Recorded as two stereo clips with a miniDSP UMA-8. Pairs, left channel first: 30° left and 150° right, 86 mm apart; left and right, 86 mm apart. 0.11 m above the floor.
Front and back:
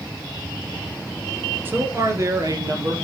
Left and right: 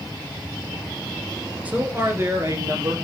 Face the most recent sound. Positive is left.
turn(degrees=-125)